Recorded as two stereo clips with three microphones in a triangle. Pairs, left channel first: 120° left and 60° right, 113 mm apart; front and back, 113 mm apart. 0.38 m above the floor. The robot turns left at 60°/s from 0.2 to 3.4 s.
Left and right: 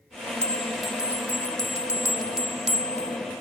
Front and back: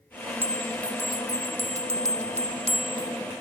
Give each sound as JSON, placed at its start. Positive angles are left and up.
{"t": 0.4, "sound": "a bell", "azimuth_deg": 105}